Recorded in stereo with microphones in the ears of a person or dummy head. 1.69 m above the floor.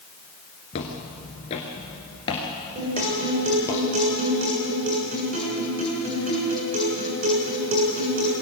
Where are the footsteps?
25° left (ahead or behind), 1.7 m; by 3.8 s 15° left (ahead or behind), 2.5 m.